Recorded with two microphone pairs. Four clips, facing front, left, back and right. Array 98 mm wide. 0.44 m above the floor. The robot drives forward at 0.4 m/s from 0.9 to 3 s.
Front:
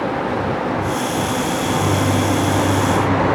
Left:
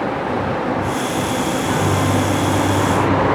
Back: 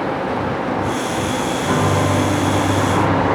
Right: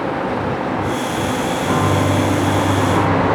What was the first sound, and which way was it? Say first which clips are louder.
A piano: right 4 dB, back 3 dB; 160° right.